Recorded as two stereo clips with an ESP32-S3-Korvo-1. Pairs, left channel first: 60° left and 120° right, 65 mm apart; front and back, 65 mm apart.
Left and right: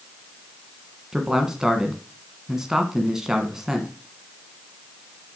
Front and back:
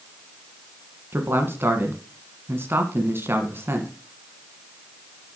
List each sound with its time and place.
1.1 s a man speaking: 165° left, 1.5 m